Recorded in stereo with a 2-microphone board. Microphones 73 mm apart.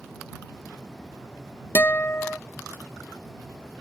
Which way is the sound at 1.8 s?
30° left (ahead or behind).